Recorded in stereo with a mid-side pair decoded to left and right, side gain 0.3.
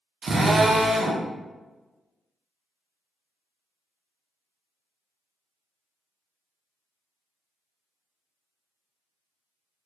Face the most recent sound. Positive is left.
turn(degrees=-65)